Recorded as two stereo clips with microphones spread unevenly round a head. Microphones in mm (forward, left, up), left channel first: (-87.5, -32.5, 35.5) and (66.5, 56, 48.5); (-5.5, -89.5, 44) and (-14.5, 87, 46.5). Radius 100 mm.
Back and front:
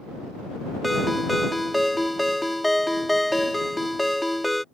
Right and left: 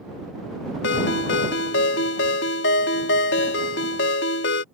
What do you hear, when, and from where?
0.8 s a ringtone: 60° right